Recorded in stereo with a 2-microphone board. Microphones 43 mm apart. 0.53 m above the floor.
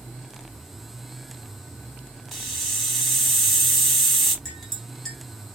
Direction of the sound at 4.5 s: 10° left (ahead or behind).